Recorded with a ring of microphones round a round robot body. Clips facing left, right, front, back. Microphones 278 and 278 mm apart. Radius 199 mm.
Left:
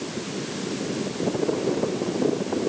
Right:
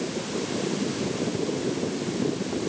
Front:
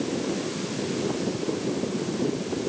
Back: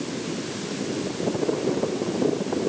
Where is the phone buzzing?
I don't hear a phone buzzing.